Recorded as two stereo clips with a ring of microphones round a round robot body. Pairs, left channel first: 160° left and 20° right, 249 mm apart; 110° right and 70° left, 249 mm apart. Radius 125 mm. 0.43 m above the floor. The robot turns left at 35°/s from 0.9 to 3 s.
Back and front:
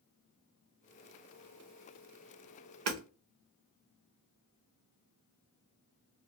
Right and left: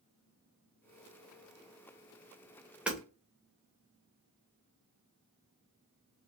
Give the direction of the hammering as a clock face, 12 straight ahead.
1 o'clock.